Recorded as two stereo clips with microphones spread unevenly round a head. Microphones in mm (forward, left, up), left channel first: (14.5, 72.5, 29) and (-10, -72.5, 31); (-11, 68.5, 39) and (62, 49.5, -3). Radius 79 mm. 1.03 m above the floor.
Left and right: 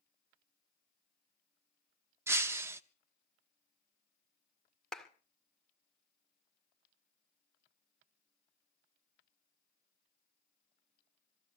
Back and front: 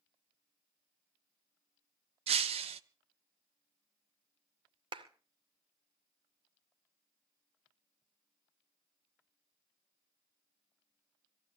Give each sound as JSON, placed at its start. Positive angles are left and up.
{"t": 2.3, "sound": "breaking glass", "azimuth_deg": -30, "distance_m": 0.8}
{"t": 4.9, "sound": "a clap", "azimuth_deg": -10, "distance_m": 2.0}